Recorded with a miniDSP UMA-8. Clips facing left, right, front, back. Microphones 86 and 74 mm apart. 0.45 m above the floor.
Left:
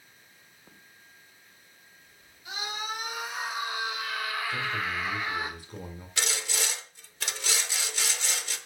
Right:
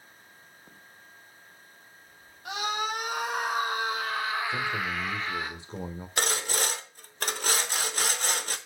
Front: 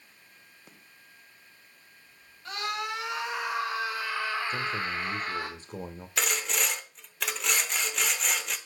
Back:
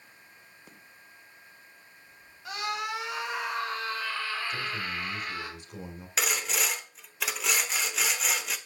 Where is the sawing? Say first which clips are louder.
Right 4 dB, even; 90° right, 0.9 m.